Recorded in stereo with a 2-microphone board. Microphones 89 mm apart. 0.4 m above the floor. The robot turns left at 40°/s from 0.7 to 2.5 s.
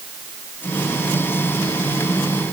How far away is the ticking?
No ticking in this recording.